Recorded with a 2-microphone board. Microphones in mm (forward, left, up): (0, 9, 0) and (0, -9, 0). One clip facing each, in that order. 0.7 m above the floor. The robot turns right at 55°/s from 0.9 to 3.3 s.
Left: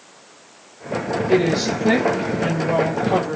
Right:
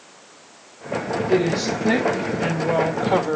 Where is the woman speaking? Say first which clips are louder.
Left 2 dB; 130° left, 1.4 m; by 3.4 s 115° right, 1.4 m.